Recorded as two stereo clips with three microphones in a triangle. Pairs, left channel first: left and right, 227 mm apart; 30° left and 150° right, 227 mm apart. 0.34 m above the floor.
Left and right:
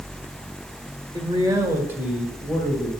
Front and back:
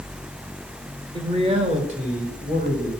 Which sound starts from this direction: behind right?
A man speaking, at 1.1 s.